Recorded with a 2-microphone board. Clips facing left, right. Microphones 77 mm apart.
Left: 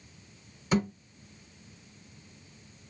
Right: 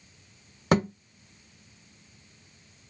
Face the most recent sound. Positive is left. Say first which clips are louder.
# right 4 dB
turn(degrees=-70)  # may be behind; listen again after turning